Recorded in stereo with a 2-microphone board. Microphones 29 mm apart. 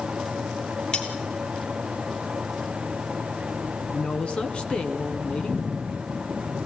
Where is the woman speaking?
40° left (ahead or behind), 2 m.